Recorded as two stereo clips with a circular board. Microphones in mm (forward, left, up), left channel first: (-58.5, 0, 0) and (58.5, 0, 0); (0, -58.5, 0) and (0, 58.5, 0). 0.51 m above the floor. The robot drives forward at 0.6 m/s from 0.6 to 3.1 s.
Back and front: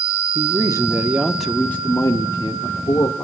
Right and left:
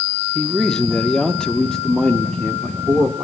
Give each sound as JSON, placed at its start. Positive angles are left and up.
{"t": 0.3, "sound": "a man speaking", "azimuth_deg": -10, "distance_m": 1.0}